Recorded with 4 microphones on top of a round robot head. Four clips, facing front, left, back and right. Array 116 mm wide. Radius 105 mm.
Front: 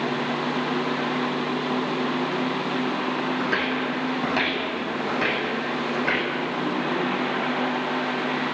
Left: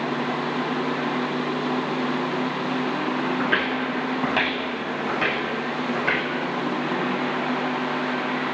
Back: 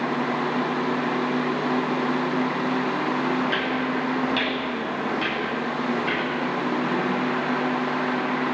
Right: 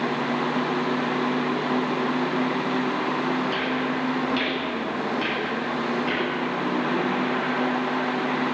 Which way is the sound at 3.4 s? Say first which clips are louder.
Left 1 dB, back 1 dB; 60° left.